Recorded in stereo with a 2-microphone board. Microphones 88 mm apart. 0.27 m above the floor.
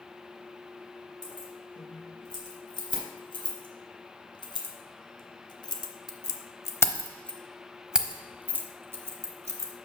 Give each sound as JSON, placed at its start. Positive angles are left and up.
{"t": 1.2, "sound": "keys jangling", "side_deg": 60, "distance_m": 3.5}